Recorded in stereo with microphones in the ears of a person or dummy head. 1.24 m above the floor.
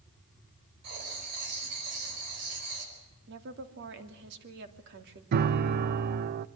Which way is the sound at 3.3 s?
65° right (ahead or behind).